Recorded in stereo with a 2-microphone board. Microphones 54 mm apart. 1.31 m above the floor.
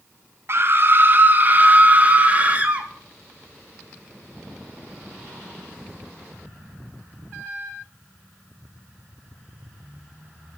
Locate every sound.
0.5 s a scream: 45° right (ahead or behind), 0.9 m; by 2.9 s 25° right (ahead or behind), 2 m